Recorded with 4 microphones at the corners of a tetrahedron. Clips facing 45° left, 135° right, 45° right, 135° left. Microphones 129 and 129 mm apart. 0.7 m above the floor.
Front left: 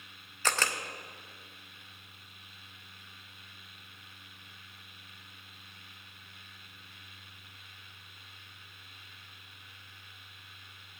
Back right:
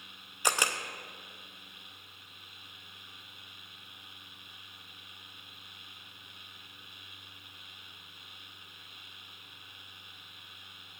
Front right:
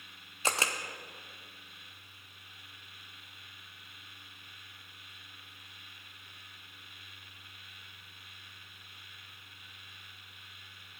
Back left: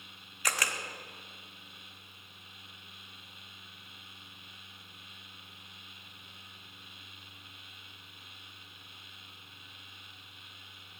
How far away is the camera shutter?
About 0.5 m.